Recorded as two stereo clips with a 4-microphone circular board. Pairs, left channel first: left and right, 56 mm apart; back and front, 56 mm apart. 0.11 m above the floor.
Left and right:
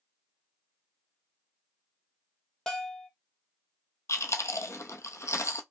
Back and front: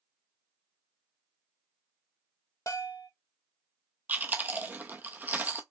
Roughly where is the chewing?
Ahead left.